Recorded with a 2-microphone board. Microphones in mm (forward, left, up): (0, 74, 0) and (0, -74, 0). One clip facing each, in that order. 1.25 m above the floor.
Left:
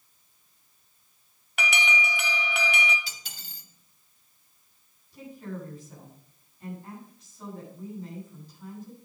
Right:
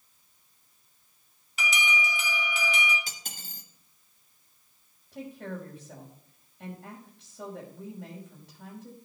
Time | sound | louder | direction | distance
1.6 | an alarm | left 2 dB | 65° left (ahead or behind) | 1.1 m
3.1 | cutlery clinking | right 2 dB | 45° right (ahead or behind) | 1.1 m
5.1 | a woman speaking | right 1 dB | 75° right (ahead or behind) | 5.5 m